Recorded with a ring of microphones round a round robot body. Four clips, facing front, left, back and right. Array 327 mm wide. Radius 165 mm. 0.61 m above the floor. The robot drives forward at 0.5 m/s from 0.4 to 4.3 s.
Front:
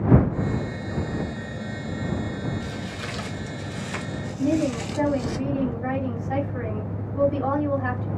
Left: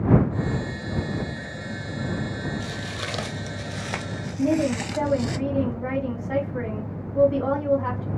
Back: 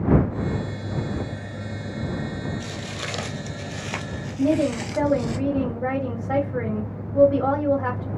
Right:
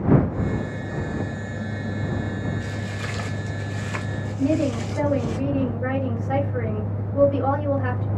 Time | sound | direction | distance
2.6 | footsteps | 130° left | 1.2 m
4.4 | a woman speaking | 165° right | 3 m